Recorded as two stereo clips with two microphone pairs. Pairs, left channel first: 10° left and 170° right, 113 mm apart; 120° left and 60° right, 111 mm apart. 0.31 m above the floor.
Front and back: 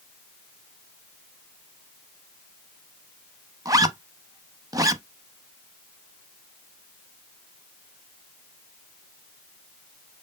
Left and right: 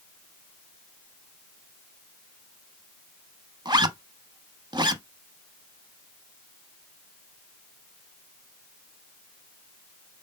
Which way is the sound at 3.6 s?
110° right.